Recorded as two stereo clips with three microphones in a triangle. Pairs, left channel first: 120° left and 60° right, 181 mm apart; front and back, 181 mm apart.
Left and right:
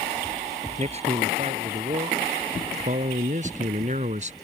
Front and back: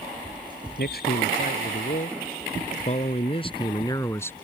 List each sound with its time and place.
0.8 s a man speaking: 10° right; by 4.3 s 75° right